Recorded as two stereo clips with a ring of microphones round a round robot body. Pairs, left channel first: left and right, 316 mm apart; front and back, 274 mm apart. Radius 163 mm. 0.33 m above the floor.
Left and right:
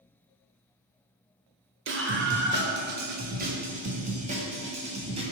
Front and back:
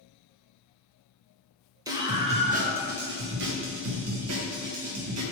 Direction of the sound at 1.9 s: 110° right.